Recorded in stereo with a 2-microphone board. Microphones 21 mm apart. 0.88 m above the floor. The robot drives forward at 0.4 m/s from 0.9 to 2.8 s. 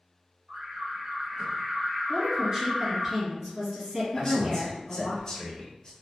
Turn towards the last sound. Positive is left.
turn(degrees=30)  # may be behind; listen again after turning